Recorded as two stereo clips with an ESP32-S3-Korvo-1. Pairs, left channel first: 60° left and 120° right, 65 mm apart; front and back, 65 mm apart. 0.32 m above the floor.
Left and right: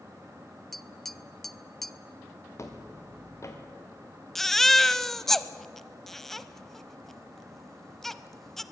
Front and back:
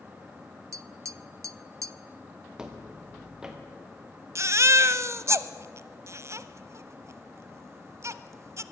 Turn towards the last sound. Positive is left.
turn(degrees=145)